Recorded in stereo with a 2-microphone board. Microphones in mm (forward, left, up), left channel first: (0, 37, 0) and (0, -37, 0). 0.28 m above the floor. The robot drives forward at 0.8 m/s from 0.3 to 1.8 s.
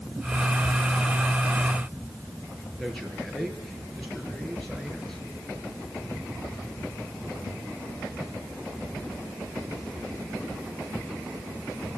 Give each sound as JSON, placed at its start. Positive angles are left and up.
{"t": 2.8, "sound": "a man speaking", "side_deg": 5, "distance_m": 6.5}